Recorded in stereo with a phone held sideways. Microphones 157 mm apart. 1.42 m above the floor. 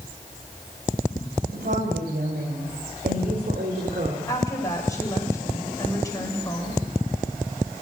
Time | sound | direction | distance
1.5 | a woman speaking | 70° right (ahead or behind) | 7 m
4.3 | a woman speaking | 20° left (ahead or behind) | 7 m